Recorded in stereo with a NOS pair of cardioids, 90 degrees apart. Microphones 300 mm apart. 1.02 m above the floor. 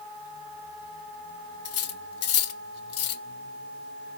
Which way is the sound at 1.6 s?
55° left.